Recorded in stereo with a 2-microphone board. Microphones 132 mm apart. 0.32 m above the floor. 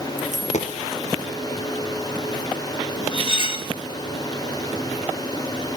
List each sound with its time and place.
0.2 s a dropped coin: 65° left (ahead or behind), 2.5 m
3.1 s cutlery clinking: 40° left (ahead or behind), 0.9 m